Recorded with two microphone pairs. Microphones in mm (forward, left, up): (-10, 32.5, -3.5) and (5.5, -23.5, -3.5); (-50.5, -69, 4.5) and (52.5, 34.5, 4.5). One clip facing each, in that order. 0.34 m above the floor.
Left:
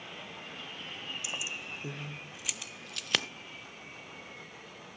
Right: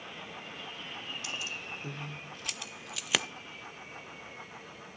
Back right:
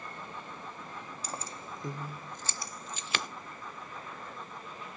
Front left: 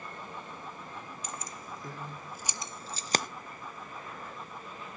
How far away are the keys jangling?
About 0.9 m.